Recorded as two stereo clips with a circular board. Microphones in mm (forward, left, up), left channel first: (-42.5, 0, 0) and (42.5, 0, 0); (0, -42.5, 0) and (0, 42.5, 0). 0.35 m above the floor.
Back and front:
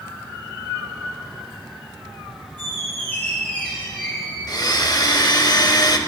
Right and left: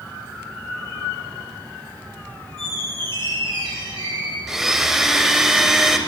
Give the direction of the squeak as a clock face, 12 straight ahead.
8 o'clock.